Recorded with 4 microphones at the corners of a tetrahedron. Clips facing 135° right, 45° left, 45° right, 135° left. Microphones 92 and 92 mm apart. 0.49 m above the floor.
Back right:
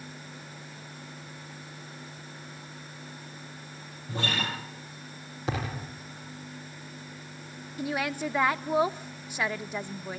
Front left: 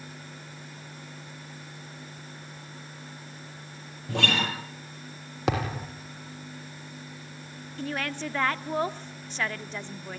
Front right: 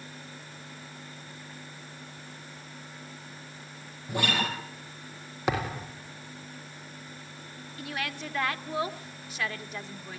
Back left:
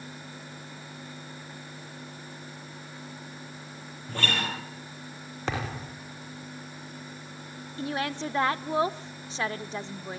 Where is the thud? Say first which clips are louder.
Front left 5 dB, front right 3 dB; 35° left, 5.5 m.